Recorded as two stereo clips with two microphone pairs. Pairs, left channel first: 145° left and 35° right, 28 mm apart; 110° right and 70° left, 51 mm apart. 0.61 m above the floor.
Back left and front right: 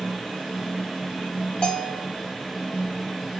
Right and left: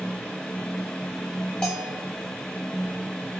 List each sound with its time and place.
1.6 s a bell: straight behind, 1.8 m